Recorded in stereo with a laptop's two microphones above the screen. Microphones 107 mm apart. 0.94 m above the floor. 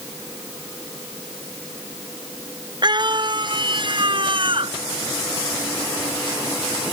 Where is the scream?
45° right (ahead or behind); by 4.7 s 50° right (ahead or behind).